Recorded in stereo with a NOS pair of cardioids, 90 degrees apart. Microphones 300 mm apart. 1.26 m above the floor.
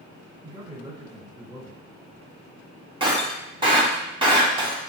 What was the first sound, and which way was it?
A man speaking, 15° right.